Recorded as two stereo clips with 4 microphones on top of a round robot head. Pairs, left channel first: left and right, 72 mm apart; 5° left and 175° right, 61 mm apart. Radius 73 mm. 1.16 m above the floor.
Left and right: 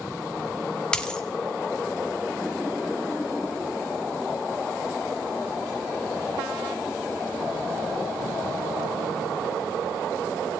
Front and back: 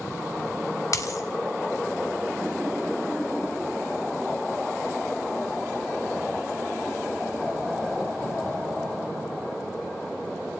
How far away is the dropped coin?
About 0.6 m.